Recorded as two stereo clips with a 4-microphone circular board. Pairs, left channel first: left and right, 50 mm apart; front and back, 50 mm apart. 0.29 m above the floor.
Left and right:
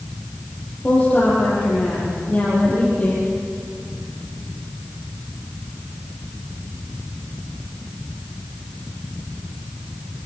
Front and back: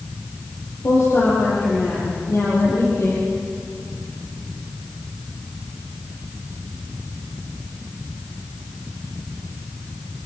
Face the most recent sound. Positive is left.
turn(degrees=30)